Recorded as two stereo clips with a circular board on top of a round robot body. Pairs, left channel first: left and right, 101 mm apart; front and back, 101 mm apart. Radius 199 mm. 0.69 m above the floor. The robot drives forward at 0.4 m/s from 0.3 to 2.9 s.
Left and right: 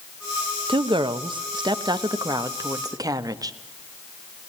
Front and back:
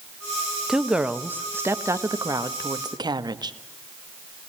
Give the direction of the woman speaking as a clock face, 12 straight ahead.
3 o'clock.